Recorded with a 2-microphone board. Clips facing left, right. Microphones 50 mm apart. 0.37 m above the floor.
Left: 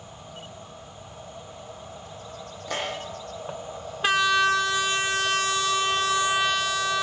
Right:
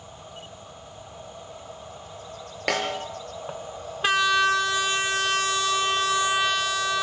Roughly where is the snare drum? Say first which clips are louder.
Right 5 dB; right.